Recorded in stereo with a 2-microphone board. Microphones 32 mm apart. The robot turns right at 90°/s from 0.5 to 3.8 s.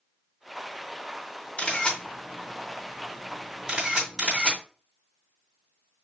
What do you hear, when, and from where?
1.6 s a camera shutter: 40° left (ahead or behind), 2.5 m; by 4.6 s 25° right (ahead or behind), 2.5 m